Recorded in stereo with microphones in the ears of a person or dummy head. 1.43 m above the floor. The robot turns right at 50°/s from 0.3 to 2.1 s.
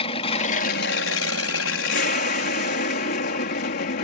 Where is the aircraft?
35° left; by 4.0 s 125° left.